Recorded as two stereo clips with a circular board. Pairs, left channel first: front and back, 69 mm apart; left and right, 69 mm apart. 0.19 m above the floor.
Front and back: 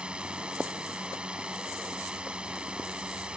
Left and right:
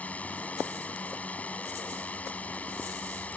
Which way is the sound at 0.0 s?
125° left.